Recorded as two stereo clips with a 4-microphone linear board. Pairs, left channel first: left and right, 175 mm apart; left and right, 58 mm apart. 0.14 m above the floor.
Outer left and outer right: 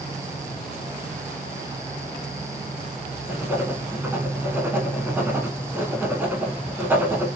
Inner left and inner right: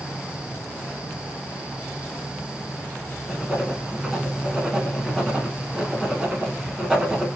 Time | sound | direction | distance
3.3 | writing | 15° right (ahead or behind) | 1.1 m